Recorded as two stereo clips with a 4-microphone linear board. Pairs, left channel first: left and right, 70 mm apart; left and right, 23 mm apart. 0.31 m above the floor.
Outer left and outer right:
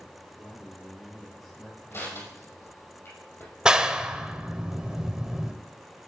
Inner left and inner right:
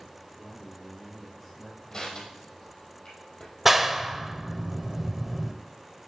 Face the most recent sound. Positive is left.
turn(degrees=-10)  # may be behind; listen again after turning